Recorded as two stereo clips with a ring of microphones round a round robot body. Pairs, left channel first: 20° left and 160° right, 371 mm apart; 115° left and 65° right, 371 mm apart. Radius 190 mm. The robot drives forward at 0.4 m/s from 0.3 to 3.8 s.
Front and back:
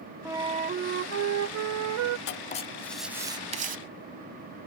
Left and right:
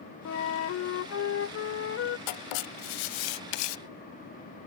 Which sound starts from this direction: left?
Writing, at 2.3 s.